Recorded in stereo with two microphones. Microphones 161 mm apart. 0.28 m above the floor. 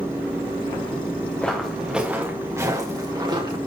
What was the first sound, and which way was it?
Footsteps, 5° left (ahead or behind).